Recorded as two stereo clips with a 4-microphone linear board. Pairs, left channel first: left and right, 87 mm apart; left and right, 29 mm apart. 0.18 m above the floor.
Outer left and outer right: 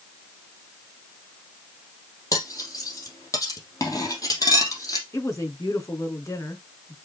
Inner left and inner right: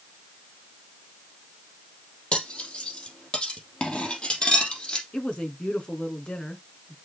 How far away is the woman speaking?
About 2.5 m.